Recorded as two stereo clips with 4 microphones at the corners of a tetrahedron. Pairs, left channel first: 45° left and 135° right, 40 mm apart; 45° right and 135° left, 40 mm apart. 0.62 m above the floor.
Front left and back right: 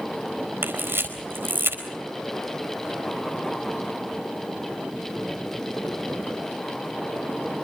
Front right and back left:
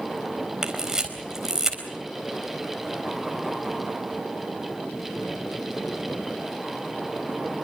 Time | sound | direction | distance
0.6 | a camera shutter | 150° right | 4 m